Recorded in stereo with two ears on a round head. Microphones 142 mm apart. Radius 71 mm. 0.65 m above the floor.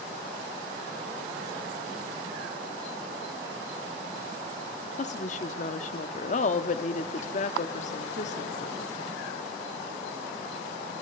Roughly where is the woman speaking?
Left.